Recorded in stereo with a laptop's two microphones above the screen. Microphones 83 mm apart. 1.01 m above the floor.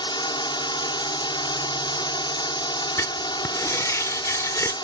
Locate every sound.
0.0 s a drone: 65° left (ahead or behind)
3.0 s writing: 40° left (ahead or behind)